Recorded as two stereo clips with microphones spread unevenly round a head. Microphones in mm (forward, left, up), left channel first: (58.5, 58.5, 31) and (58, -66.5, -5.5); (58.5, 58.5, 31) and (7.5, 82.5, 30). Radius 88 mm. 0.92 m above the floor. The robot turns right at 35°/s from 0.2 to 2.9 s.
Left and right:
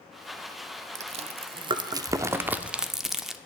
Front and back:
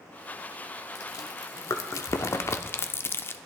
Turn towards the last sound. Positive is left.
turn(degrees=10)